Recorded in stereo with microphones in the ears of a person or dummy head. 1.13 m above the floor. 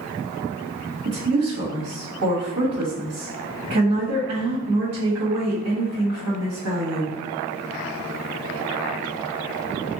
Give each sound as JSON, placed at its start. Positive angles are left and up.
{"t": 1.1, "sound": "a woman speaking", "side_deg": -85, "distance_m": 1.3}